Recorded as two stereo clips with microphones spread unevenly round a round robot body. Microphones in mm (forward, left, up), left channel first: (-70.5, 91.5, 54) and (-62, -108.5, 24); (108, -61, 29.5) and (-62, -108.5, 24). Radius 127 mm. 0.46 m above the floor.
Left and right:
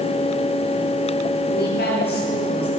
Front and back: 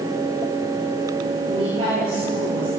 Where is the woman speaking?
125° left, 9 m; by 2.7 s 130° left, 10 m.